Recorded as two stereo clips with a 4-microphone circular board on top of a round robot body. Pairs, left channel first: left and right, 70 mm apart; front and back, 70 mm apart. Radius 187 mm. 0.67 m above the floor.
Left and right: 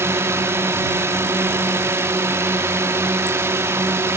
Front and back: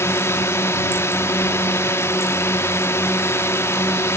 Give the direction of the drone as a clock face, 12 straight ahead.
1 o'clock.